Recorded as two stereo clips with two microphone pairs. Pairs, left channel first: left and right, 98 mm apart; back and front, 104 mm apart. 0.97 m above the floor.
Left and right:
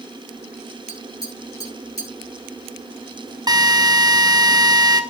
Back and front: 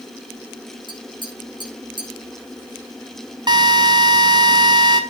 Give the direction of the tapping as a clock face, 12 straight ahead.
11 o'clock.